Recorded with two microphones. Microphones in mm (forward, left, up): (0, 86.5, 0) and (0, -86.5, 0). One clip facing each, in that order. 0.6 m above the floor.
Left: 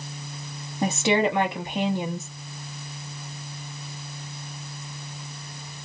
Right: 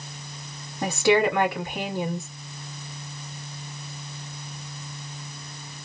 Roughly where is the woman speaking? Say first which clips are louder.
Right 2 dB; left.